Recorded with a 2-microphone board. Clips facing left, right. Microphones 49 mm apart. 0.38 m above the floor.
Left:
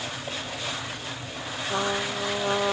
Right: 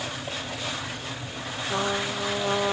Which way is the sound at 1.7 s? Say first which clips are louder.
Even; centre (ahead or behind).